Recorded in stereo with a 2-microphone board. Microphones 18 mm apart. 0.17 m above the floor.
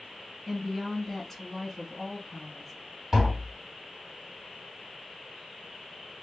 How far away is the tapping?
About 2.5 m.